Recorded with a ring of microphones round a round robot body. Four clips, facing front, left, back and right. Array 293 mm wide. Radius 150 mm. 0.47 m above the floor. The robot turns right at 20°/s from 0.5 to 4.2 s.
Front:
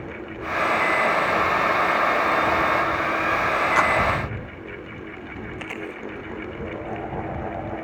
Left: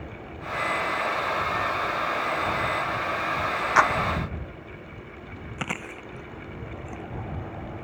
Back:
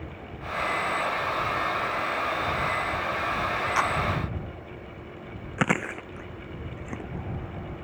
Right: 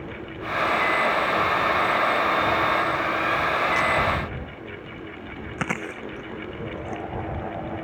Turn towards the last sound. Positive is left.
turn(degrees=-160)